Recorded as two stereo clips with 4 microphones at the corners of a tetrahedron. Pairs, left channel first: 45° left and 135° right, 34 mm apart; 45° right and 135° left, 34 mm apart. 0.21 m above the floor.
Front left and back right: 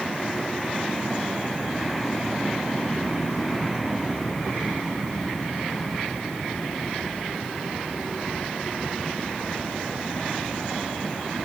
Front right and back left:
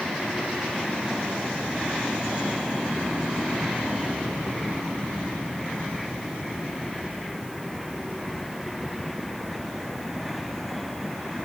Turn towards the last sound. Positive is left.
No sound to turn to.